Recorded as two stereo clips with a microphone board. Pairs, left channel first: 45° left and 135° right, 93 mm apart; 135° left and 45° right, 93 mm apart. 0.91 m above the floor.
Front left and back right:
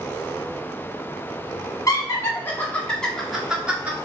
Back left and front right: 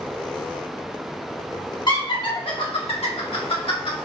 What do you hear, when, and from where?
1.9 s laughter: 100° left, 1.7 m; by 4.0 s 150° left, 1.8 m